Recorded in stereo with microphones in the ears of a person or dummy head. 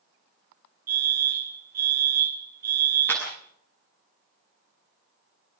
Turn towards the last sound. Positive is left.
turn(degrees=20)  # may be behind; listen again after turning